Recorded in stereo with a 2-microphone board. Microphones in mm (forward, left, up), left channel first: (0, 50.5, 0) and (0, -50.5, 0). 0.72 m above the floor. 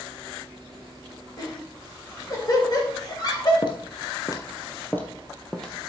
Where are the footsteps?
50° left (ahead or behind), 1.3 m; by 5.7 s 5° left (ahead or behind), 1.4 m.